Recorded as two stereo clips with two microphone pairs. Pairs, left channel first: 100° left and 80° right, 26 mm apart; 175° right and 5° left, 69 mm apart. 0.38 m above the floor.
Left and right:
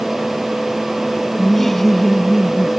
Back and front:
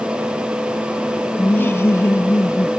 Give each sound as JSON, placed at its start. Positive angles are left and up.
{"t": 1.4, "sound": "laughter", "azimuth_deg": 165}